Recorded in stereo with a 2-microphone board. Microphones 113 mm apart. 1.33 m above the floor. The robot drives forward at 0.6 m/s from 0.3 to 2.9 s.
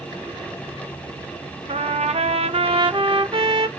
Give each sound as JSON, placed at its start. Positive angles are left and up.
{"t": 1.7, "sound": "a trumpet", "side_deg": -65, "distance_m": 0.8}